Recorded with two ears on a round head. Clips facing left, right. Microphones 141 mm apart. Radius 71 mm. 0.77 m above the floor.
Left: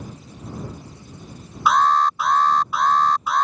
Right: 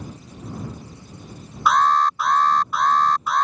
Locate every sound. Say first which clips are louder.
1.7 s an alarm: even; 5° left (ahead or behind)